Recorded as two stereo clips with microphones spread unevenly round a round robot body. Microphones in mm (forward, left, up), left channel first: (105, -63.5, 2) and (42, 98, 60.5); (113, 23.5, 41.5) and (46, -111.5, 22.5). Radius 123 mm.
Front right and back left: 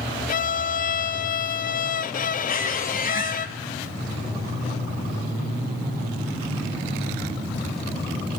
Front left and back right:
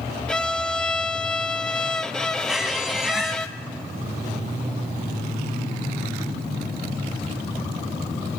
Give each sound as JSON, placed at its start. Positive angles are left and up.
{"t": 0.3, "sound": "a violin", "azimuth_deg": -20, "distance_m": 0.6}
{"t": 2.5, "sound": "a squeak", "azimuth_deg": -30, "distance_m": 2.0}